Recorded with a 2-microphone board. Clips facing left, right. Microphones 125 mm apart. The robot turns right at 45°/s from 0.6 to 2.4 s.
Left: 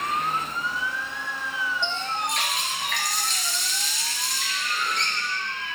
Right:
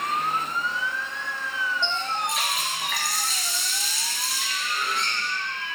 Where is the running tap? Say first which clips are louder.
Right 1 dB; 15° left (ahead or behind), 1.9 m; by 5.3 s 5° right (ahead or behind), 1.9 m.